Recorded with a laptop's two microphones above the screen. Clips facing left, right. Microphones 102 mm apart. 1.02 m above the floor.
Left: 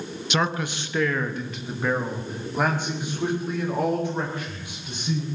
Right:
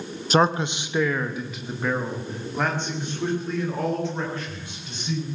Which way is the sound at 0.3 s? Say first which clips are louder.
Right 6 dB; 40° right (ahead or behind).